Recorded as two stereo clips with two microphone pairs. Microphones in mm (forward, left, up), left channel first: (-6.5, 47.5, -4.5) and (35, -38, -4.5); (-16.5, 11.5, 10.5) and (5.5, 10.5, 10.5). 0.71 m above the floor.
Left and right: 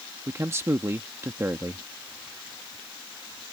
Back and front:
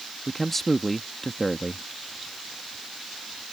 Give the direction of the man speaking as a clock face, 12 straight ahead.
4 o'clock.